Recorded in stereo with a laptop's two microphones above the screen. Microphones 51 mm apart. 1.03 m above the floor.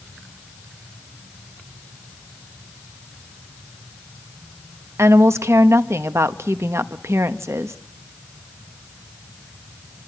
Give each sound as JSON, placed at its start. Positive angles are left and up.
{"t": 5.0, "sound": "a woman speaking", "side_deg": -65, "distance_m": 1.0}